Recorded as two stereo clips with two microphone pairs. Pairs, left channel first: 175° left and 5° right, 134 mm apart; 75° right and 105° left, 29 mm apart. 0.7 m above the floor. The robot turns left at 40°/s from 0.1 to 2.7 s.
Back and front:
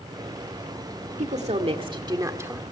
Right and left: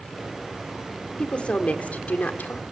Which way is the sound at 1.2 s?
25° right.